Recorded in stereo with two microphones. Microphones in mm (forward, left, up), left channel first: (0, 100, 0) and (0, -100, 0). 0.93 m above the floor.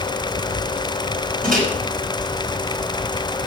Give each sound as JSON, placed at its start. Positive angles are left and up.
{"t": 1.4, "sound": "a microwave", "side_deg": -45, "distance_m": 4.5}